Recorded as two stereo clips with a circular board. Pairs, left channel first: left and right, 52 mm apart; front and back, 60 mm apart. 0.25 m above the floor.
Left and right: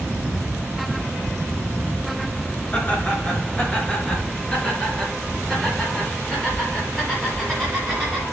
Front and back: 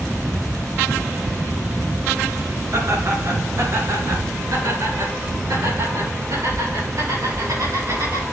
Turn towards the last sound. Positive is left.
turn(degrees=180)